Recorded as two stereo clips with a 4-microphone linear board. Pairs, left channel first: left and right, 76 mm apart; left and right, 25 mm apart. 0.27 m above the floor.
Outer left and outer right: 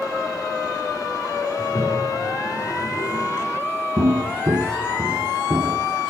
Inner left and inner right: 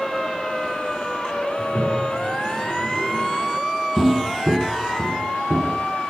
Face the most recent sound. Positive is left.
turn(degrees=-40)  # may be behind; listen again after turning